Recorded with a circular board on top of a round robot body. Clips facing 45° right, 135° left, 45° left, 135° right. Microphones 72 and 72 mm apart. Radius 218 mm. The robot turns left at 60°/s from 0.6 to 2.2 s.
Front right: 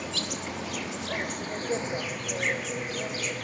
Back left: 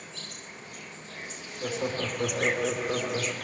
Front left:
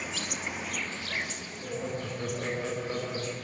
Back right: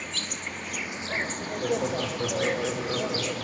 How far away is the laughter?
About 3 m.